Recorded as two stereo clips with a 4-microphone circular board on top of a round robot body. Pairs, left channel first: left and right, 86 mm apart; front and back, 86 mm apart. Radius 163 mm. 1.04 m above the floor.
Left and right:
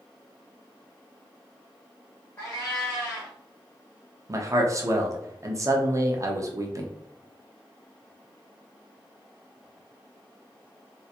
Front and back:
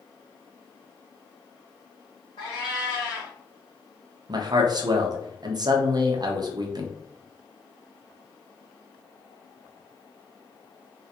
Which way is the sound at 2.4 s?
30° left.